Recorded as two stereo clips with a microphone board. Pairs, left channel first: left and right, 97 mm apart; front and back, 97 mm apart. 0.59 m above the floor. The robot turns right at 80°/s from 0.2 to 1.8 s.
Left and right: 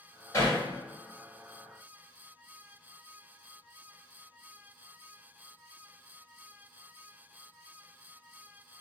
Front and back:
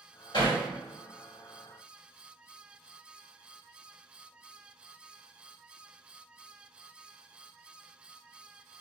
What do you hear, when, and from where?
0.3 s hammering: 35° left, 1.5 m; by 0.6 s 60° left, 1.5 m